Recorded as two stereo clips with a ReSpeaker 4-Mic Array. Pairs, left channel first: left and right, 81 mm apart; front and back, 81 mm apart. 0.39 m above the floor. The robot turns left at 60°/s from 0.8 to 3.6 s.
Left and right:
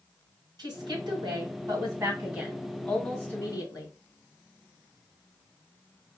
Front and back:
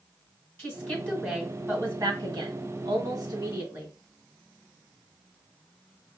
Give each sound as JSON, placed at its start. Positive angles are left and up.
{"t": 0.6, "sound": "a woman speaking", "azimuth_deg": -60, "distance_m": 2.5}